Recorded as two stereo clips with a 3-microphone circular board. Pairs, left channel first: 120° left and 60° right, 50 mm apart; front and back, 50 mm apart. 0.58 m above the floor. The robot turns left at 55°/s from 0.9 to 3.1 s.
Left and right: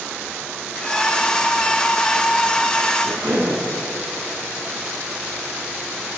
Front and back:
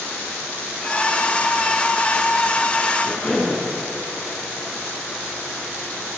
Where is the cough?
80° right, 7 m; by 3.6 s 85° right, 7 m.